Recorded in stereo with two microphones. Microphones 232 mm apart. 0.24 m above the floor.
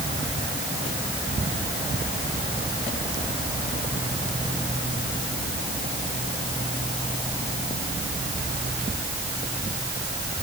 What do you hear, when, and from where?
Only background noise.